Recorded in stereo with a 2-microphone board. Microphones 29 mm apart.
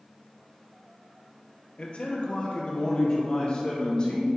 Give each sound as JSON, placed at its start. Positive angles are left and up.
{"t": 1.8, "sound": "a man speaking", "side_deg": 40, "distance_m": 2.0}